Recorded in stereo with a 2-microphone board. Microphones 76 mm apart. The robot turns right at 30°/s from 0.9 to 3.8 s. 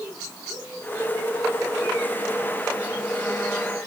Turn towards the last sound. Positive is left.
No sound to turn to.